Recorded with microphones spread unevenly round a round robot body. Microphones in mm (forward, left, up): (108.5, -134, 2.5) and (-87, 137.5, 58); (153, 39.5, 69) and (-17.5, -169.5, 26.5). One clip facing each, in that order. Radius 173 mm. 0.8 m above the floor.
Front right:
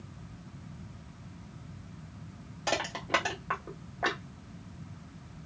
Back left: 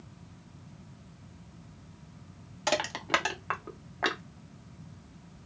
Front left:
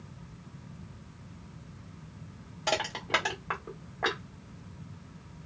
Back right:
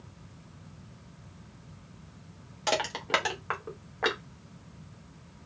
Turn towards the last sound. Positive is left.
turn(degrees=-175)